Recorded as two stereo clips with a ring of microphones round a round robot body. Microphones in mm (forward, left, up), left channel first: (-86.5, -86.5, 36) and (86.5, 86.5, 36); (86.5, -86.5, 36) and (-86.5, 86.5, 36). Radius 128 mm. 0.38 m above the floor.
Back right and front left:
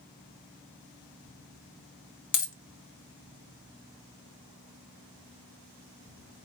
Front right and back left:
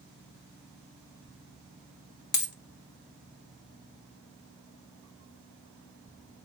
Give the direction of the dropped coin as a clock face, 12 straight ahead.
3 o'clock.